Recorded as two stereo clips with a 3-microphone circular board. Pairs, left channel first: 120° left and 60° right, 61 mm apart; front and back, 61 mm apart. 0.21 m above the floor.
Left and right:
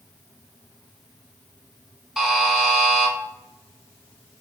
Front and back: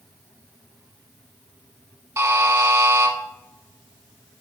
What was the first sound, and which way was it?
A buzzer, 140° right.